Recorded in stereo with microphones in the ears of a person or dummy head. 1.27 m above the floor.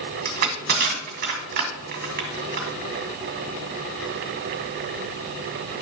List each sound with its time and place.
0.2 s crushing: 55° right (ahead or behind), 1.8 m